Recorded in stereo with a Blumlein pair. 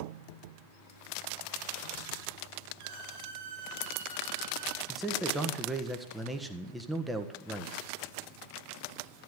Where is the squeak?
50° right, 6 m.